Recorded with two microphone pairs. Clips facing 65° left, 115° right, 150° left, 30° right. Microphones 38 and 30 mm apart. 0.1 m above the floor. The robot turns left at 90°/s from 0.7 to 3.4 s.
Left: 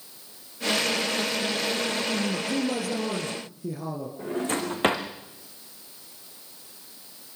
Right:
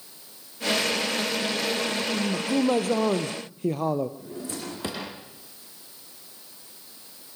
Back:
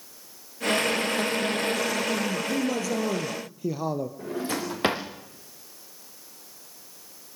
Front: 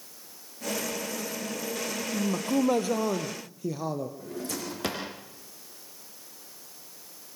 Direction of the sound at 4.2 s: 95° left.